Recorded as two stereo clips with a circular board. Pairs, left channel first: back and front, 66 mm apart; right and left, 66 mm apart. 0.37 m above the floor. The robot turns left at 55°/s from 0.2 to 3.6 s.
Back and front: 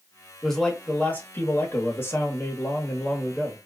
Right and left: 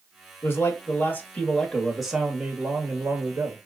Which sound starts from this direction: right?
A man speaking, at 0.4 s.